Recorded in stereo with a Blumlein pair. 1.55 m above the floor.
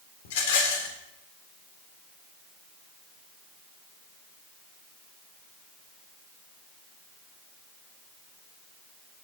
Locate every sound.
0.2 s a rattle: 55° left, 3.5 m